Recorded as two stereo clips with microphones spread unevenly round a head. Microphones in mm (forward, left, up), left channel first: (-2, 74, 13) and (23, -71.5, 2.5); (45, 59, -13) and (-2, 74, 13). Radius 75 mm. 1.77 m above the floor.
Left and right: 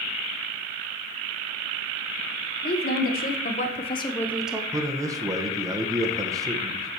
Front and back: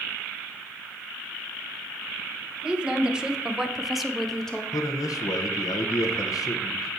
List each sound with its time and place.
2.6 s a woman speaking: 105° left, 1.6 m; by 4.6 s 145° right, 0.7 m
4.7 s a man speaking: 10° right, 1.0 m